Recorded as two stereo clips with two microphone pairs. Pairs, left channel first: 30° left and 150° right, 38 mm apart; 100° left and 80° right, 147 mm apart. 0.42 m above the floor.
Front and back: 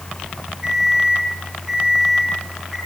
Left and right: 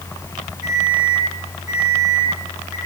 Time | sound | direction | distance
0.6 | an alarm clock | 125° left | 9 m